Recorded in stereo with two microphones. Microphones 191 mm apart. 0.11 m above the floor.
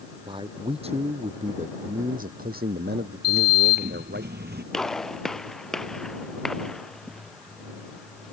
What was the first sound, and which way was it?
A man speaking, 25° right (ahead or behind).